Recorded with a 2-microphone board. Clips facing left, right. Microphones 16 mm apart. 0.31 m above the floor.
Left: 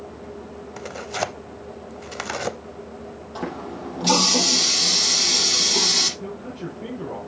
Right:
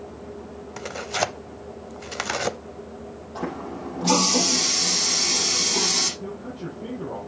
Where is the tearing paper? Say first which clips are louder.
Right 2 dB; 15° right (ahead or behind), 0.5 m.